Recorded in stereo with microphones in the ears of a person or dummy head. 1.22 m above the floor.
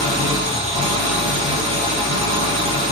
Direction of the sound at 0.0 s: 30° right (ahead or behind).